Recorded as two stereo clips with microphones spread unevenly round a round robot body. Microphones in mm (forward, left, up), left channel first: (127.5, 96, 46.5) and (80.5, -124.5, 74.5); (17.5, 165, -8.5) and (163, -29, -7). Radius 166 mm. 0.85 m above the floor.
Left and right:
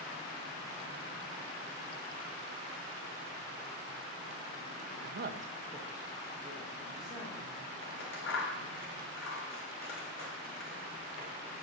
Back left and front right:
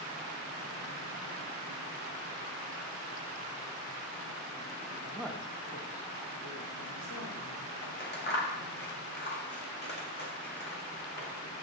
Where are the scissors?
85° left, 2 m.